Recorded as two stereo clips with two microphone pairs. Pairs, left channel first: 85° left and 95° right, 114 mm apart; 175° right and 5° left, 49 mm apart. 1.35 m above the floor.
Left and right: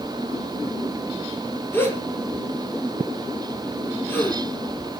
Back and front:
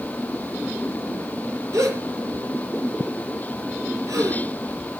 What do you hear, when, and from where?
1.7 s a gasp: 10° left, 5 m